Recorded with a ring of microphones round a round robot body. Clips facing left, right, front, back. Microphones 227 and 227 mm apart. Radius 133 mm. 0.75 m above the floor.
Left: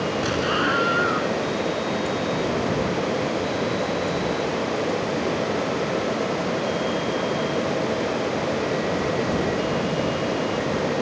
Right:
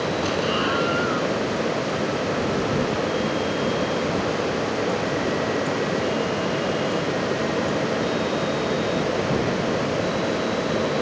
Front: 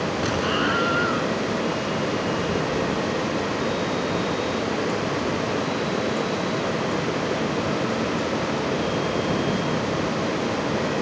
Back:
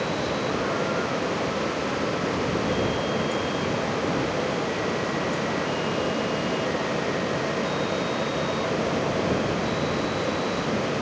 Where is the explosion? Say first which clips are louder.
Even, front 2 dB; 20° left.